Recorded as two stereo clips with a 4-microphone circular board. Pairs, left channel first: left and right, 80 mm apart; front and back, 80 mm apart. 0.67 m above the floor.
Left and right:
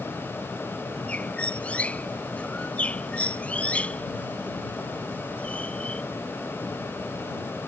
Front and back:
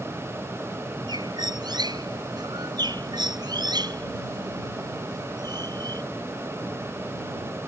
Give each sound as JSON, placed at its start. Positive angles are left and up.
{"t": 1.1, "sound": "a bird", "azimuth_deg": 165}